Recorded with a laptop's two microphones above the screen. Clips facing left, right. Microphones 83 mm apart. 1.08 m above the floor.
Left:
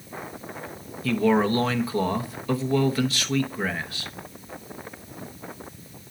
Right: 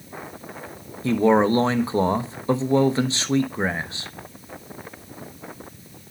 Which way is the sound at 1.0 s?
25° right (ahead or behind).